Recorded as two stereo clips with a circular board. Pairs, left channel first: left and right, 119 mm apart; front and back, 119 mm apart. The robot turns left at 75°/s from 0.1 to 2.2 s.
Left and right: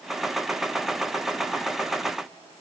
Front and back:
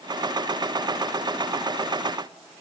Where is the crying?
I don't hear crying.